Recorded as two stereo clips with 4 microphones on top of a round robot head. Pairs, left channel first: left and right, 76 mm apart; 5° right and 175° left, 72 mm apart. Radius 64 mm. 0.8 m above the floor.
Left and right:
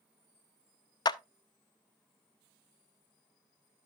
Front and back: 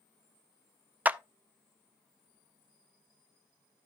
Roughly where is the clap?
Left.